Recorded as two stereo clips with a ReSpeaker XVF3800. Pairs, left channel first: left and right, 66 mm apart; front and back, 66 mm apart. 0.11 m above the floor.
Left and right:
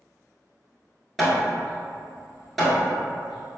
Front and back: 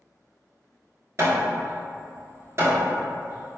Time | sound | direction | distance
1.2 | hammering | straight behind | 1.0 m